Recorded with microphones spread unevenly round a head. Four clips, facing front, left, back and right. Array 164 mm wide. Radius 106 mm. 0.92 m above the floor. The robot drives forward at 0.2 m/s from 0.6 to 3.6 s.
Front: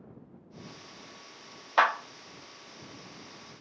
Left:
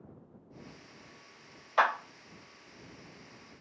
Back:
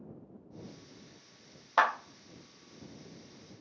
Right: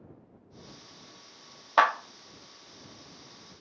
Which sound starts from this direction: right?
A clap, at 1.8 s.